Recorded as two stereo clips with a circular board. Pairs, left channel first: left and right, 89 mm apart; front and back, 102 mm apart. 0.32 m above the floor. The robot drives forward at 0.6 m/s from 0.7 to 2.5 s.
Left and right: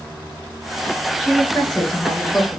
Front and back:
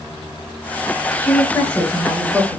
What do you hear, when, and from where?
1.2 s a woman speaking: 15° left, 1.0 m; by 2.6 s 160° left, 0.9 m